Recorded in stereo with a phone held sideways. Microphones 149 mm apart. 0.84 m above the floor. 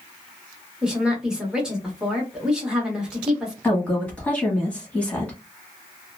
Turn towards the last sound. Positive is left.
turn(degrees=10)  # may be behind; listen again after turning